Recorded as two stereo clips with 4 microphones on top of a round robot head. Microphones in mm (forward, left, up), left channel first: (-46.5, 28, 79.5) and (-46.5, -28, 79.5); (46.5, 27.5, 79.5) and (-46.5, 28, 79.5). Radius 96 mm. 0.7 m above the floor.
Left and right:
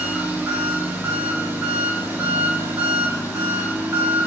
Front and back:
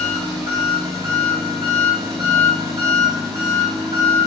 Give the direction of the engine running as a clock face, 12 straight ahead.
5 o'clock.